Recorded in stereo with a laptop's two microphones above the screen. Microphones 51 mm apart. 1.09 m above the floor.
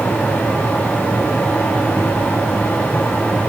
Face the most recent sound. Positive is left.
turn(degrees=40)  # may be behind; listen again after turning